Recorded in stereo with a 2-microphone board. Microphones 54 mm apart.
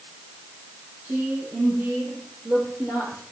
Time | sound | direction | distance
1.0 | a woman speaking | 45° right (ahead or behind) | 5 m